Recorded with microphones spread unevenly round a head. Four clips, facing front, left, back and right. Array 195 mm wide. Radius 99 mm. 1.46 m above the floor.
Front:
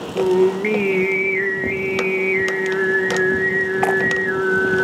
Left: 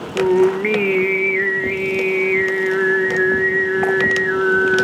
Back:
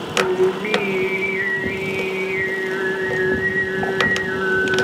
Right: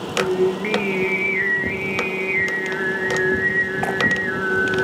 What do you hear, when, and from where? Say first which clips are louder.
0.1 s singing: left 5 dB, front 2 dB; 45° left, 1.4 m